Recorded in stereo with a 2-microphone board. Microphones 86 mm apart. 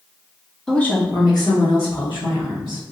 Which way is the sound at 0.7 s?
5° left (ahead or behind).